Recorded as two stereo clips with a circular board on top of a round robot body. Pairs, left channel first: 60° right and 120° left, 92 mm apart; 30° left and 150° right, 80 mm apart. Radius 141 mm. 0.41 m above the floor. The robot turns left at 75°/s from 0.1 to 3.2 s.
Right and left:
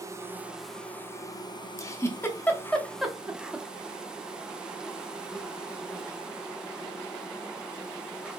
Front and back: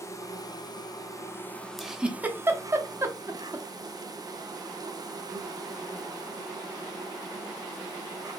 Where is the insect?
70° left, 0.8 m; by 8.4 s 160° right, 0.8 m.